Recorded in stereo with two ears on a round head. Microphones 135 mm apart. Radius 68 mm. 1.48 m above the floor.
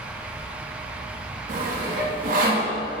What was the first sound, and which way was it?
Sawing, 60° right (ahead or behind).